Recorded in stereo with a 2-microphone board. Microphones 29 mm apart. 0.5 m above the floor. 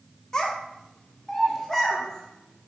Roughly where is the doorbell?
No doorbell in this recording.